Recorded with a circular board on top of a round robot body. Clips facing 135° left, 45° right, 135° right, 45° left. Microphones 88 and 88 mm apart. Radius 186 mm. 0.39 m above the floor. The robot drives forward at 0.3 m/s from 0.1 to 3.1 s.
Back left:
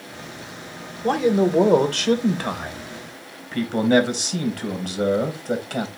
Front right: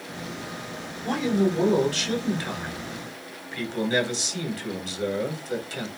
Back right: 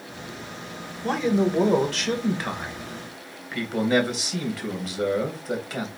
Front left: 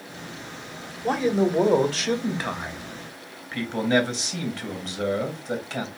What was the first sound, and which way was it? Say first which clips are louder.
A man speaking: back left 5 dB, front left 1 dB; 130° left.